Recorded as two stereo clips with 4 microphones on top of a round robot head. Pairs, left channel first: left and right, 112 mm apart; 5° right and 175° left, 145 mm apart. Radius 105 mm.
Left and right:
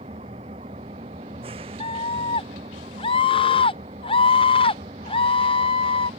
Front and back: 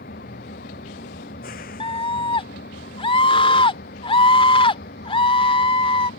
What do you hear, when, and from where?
0.0 s an engine running: 40° right
1.8 s a scream: 45° left